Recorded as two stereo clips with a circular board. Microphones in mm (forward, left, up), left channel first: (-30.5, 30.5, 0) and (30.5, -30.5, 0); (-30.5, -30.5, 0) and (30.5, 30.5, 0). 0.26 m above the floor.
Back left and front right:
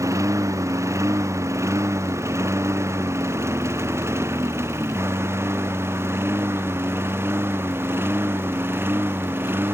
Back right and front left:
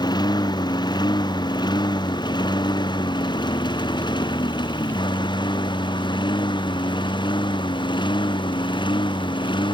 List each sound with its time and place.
0.0 s a lawn mower: 100° right; by 9.8 s 110° right